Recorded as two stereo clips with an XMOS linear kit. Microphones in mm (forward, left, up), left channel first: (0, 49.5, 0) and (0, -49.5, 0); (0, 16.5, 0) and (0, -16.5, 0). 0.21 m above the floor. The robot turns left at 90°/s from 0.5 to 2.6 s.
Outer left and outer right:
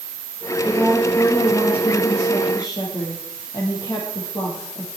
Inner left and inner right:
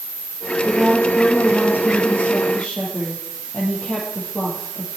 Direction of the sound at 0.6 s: 140° right.